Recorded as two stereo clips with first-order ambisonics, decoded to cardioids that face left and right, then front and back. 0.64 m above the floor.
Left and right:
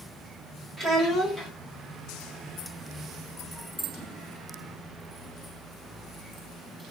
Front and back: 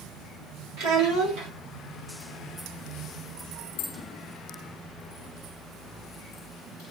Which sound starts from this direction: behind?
A child speaking, at 0.8 s.